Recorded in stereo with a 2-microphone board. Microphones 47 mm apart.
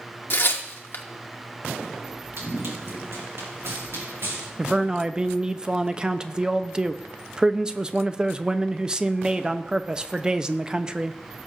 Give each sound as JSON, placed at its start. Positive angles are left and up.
{"t": 0.3, "sound": "tearing paper", "side_deg": 50, "distance_m": 1.0}
{"t": 2.4, "sound": "running footsteps", "side_deg": -65, "distance_m": 3.0}
{"t": 4.6, "sound": "a man speaking", "side_deg": -15, "distance_m": 0.5}